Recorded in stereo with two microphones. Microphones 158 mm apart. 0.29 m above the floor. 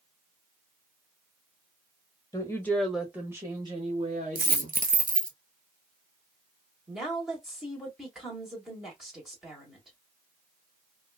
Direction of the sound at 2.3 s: 20° left (ahead or behind).